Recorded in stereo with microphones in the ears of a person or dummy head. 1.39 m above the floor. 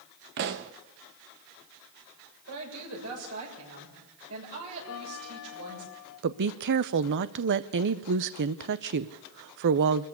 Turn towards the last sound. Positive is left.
turn(degrees=-55)  # may be behind; listen again after turning